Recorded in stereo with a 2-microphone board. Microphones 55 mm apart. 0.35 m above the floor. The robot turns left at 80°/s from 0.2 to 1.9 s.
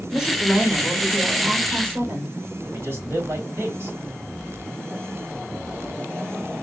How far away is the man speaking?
About 2.5 m.